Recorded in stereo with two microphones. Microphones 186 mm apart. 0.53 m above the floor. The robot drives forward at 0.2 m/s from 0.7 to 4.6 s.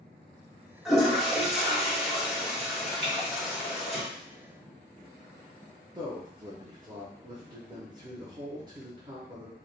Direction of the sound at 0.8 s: Centre (ahead or behind).